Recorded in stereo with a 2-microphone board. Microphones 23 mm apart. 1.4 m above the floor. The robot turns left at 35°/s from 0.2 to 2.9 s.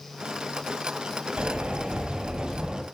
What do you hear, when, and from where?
1.4 s a sliding door: 100° right, 4 m; by 2.8 s 150° right, 4 m